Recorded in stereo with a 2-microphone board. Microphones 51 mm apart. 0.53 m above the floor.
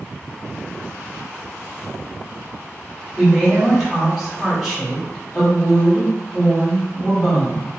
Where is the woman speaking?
5° right (ahead or behind), 1.3 m.